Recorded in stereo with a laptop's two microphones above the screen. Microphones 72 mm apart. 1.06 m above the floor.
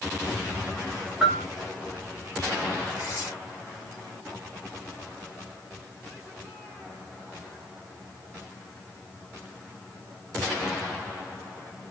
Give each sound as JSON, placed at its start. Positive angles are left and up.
{"t": 1.2, "sound": "a bell", "side_deg": -15, "distance_m": 0.7}
{"t": 3.0, "sound": "tearing paper", "side_deg": -35, "distance_m": 3.0}